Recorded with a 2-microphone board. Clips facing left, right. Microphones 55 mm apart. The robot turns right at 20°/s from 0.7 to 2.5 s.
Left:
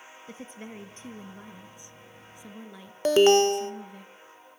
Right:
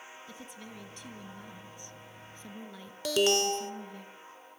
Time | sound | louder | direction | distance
0.3 | a woman speaking | left 9 dB | 130° left | 1.7 m
3.0 | an alarm | left 9 dB | 30° left (ahead or behind) | 0.8 m